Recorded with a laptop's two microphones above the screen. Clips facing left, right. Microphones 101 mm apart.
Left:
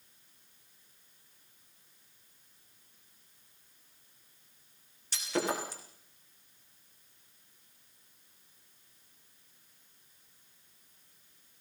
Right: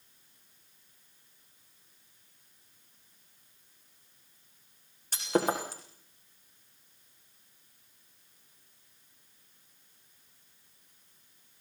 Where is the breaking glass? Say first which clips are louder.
Right 4 dB; 45° right (ahead or behind), 7 m.